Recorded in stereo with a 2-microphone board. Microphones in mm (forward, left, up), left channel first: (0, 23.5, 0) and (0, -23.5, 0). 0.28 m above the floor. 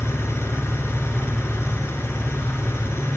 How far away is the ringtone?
No ringtone in this recording.